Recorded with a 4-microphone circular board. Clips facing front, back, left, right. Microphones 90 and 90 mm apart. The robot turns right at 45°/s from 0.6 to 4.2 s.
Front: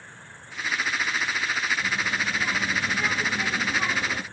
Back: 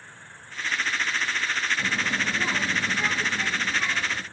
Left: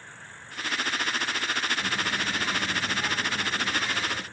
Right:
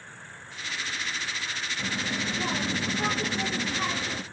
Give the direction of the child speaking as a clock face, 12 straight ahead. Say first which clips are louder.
Even, left 2 dB; 5 o'clock.